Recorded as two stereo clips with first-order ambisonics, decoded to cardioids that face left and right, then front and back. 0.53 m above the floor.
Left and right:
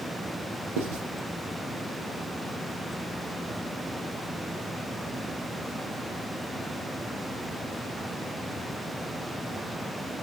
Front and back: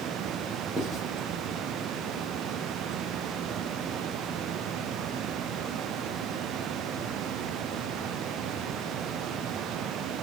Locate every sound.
0.8 s writing: 95° right, 4 m